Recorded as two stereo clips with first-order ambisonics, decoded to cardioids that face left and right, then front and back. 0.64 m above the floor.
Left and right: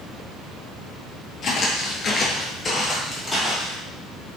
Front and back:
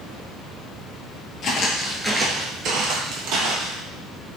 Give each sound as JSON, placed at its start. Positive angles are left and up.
{"t": 1.4, "sound": "footsteps", "azimuth_deg": 40, "distance_m": 0.8}